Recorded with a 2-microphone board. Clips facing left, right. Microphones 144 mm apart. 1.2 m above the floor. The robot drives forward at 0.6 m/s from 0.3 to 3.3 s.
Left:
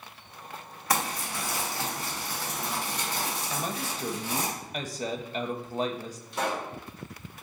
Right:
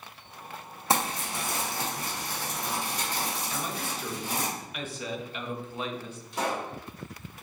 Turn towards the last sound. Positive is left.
turn(degrees=-15)  # may be behind; listen again after turning